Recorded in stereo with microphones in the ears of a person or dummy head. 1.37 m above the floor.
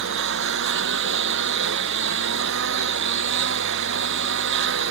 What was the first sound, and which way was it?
A lawn mower, 70° right (ahead or behind).